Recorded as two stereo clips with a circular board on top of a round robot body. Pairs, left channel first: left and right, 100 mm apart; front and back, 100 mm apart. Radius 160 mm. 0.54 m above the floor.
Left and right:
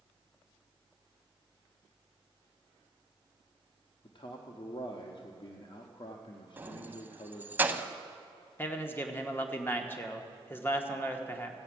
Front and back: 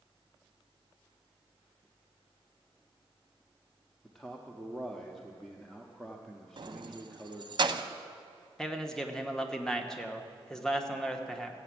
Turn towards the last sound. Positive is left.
turn(degrees=75)